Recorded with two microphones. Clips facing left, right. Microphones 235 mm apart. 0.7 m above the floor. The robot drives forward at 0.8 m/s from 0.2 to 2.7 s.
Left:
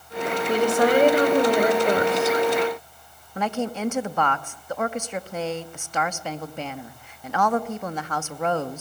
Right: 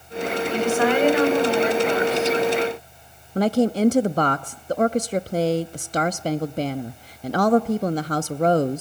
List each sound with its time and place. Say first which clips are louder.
0.5 s a woman speaking: left 2 dB; 35° left (ahead or behind), 3.5 m; by 2.4 s 55° left (ahead or behind), 2.5 m
3.4 s a woman speaking: right 8 dB; 40° right (ahead or behind), 0.6 m